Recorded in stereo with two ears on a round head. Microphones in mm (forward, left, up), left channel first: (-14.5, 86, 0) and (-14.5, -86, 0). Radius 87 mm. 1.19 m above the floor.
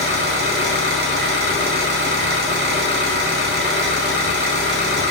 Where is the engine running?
60° right (ahead or behind), 0.8 m.